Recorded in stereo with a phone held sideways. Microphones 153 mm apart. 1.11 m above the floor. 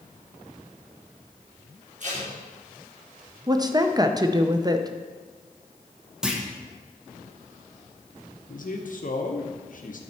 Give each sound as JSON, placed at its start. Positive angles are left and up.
{"t": 2.0, "sound": "tape being pulled", "side_deg": -55, "distance_m": 3.0}
{"t": 3.5, "sound": "a woman speaking", "side_deg": -25, "distance_m": 0.5}
{"t": 6.2, "sound": "a clunk", "side_deg": -5, "distance_m": 1.0}
{"t": 8.5, "sound": "a man speaking", "side_deg": 60, "distance_m": 0.8}